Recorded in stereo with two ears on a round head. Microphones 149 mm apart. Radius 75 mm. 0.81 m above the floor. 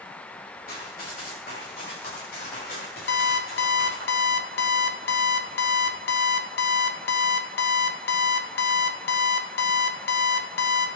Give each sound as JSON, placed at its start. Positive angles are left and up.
{"t": 0.7, "sound": "running footsteps", "side_deg": 55, "distance_m": 9.0}
{"t": 3.1, "sound": "an alarm clock", "side_deg": 65, "distance_m": 1.4}